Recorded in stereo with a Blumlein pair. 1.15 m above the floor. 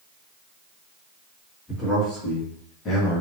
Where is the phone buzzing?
No phone buzzing in this recording.